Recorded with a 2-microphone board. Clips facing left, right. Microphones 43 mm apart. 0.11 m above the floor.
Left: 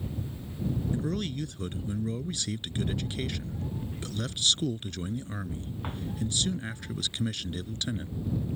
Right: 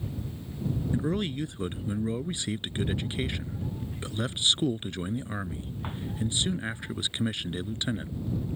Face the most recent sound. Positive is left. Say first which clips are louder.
# right 3 dB
turn(degrees=-20)  # may be behind; listen again after turning